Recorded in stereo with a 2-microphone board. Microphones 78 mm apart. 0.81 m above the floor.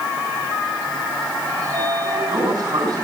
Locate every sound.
1.6 s a sliding door: 55° right (ahead or behind), 6 m